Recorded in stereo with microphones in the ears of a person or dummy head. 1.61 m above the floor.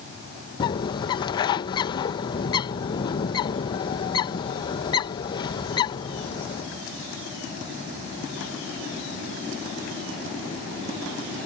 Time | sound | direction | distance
0.6 | a bird | 25° left (ahead or behind) | ?